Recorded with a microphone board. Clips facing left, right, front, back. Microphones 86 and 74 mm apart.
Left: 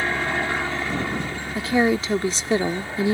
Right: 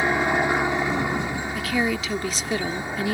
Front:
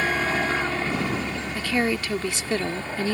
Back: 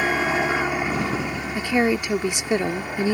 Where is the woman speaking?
125° left.